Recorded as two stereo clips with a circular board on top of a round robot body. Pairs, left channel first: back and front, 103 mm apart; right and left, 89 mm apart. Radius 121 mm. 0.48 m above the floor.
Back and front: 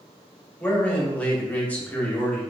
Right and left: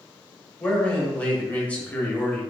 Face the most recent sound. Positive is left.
turn(degrees=-135)